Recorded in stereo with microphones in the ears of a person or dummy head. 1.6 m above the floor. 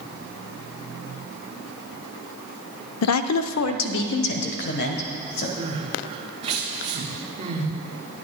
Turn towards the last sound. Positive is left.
turn(degrees=-30)  # may be behind; listen again after turning